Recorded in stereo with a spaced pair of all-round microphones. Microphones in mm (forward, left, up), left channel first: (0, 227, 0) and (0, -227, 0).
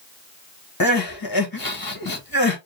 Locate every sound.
0.8 s crying: 50° left (ahead or behind), 1.3 m